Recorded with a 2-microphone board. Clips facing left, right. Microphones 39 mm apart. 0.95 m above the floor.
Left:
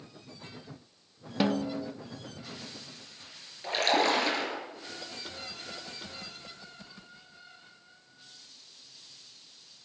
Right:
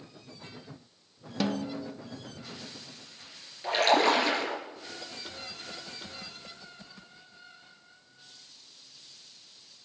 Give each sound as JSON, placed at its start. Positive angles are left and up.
{"t": 1.4, "sound": "a snare drum", "side_deg": 20, "distance_m": 0.9}
{"t": 3.6, "sound": "a splash", "side_deg": -10, "distance_m": 5.0}